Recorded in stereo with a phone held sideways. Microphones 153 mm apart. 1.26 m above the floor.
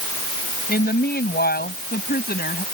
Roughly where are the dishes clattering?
I don't hear dishes clattering.